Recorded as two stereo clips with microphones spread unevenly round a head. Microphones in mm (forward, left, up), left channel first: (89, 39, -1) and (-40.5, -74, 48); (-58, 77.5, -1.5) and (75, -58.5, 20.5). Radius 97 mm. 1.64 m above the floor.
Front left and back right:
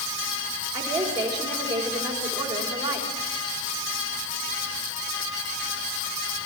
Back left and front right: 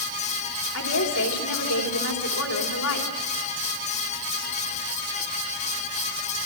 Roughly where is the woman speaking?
Behind left.